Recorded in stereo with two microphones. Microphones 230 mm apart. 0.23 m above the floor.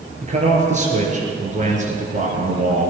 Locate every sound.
0.2 s a man speaking: 30° right (ahead or behind), 4.5 m; by 2.9 s 35° right (ahead or behind), 2.5 m